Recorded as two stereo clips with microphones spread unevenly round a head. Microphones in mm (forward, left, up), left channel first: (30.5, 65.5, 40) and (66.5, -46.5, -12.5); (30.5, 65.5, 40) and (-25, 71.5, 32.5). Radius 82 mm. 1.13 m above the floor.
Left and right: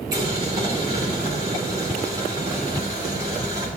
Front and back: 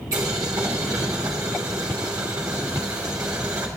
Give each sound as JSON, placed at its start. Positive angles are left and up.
{"t": 0.1, "sound": "boiling", "azimuth_deg": -140, "distance_m": 3.0}